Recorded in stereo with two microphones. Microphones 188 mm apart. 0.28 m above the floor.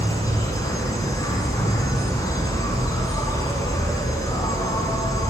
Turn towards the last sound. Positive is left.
turn(degrees=20)  # may be behind; listen again after turning